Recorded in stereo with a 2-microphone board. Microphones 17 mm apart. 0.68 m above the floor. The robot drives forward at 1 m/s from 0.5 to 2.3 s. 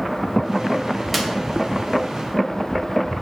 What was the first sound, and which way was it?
A clap, 5° right (ahead or behind).